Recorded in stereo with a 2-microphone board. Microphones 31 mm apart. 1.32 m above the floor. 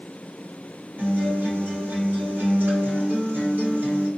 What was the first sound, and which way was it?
A guitar, 80° right.